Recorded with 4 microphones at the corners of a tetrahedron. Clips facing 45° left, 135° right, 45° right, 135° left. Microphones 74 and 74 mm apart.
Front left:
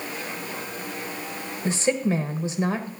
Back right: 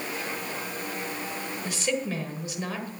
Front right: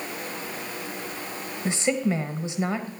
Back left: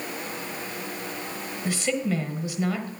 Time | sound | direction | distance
1.6 | a woman speaking | 5° left | 1.4 m